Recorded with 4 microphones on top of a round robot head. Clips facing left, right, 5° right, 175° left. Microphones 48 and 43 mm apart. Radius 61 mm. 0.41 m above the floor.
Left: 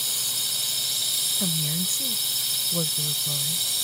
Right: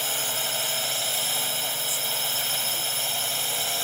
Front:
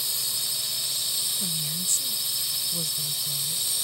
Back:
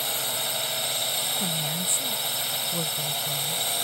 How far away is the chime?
No chime in this recording.